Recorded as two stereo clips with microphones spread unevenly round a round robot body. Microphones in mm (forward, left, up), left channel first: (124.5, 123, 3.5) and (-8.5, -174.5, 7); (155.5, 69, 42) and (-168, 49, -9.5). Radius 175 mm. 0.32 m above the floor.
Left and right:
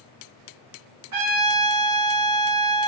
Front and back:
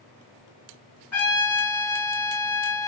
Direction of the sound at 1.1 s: 90° right.